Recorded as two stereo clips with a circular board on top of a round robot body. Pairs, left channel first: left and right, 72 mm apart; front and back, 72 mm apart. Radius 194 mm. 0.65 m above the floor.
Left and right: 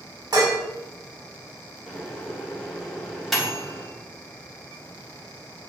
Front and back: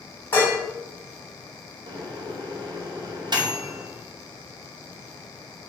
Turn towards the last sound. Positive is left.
turn(degrees=180)